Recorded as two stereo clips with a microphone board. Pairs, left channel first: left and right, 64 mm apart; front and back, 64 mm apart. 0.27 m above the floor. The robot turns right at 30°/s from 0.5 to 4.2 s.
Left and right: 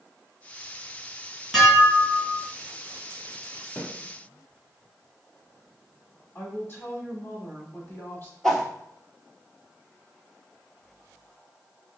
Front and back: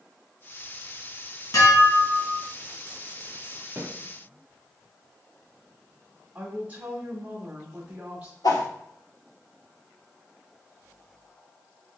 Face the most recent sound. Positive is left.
turn(degrees=5)